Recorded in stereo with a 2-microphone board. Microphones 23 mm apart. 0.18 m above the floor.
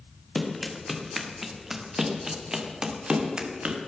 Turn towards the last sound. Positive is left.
turn(degrees=-45)  # may be behind; listen again after turning